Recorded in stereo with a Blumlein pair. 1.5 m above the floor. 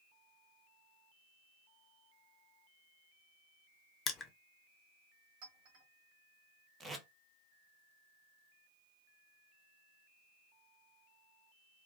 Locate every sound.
4.1 s crushing: 20° left, 0.5 m
5.4 s a clink: 55° right, 1.3 m
6.8 s tape being pulled: 15° right, 0.6 m